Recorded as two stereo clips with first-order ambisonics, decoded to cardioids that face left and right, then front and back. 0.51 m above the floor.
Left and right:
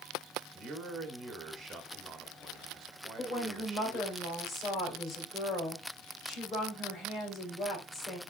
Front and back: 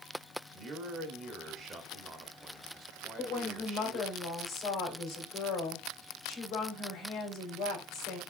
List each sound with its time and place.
0.5 s a man speaking: 140° right, 1.0 m
3.2 s a woman speaking: 35° left, 2.5 m